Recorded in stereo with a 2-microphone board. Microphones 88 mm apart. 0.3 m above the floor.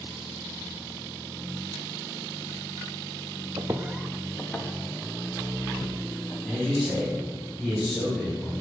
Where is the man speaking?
10° left (ahead or behind), 2 m.